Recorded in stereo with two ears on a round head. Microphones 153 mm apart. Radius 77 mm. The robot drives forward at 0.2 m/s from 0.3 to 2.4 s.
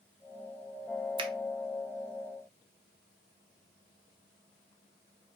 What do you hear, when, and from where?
1.2 s a finger snap: 30° right (ahead or behind), 0.6 m